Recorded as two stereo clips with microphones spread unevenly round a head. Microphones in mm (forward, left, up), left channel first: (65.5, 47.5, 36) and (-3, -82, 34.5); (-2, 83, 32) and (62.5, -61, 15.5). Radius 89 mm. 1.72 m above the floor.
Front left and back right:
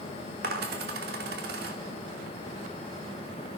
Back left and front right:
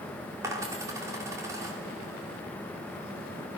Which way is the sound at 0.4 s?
140° right.